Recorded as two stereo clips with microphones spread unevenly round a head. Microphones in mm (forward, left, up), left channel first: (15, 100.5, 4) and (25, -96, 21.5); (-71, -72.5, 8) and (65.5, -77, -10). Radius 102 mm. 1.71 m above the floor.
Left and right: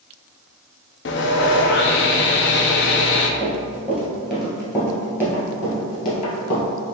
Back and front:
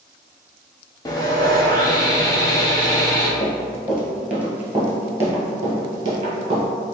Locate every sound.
1.1 s sawing: 120° left, 0.5 m
3.4 s running footsteps: 115° right, 1.8 m; by 6.6 s 45° left, 2.0 m